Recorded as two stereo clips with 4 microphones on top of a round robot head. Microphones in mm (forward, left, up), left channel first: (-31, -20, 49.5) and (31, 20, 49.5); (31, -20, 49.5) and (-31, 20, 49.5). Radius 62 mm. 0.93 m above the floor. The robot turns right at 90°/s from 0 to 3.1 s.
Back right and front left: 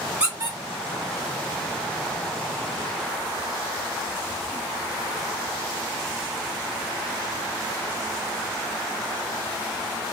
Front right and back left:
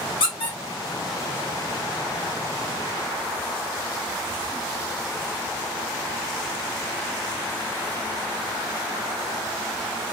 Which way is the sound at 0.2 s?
45° right.